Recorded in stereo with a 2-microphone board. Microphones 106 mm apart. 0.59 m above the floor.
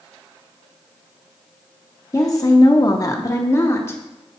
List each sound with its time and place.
2.1 s a woman speaking: 30° left (ahead or behind), 0.7 m; by 4.0 s 25° left (ahead or behind), 1.2 m